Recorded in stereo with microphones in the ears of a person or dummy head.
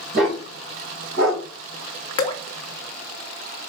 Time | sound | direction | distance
0.1 | a dog barking | 70° right (ahead or behind) | 4.5 m
2.2 | dripping | 30° left (ahead or behind) | 1.0 m